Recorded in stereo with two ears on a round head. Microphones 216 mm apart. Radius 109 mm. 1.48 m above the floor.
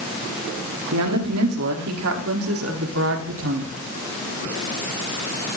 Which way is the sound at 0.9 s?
75° right (ahead or behind).